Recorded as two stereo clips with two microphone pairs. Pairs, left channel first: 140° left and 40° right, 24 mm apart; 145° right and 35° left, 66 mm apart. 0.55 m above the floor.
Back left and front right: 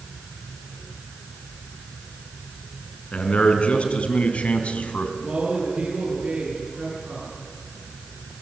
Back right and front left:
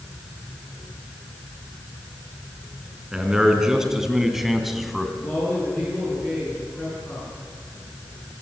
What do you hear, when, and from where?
3.1 s a man speaking: 115° left, 4.5 m; by 5.1 s 125° left, 3 m
5.2 s a man speaking: 75° right, 8.5 m